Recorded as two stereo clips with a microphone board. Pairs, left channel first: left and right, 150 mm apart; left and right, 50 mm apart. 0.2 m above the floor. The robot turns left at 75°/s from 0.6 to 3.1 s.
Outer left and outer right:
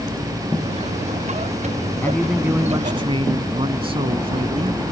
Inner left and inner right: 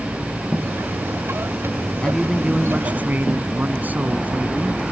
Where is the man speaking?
20° left; by 4.8 s 60° right.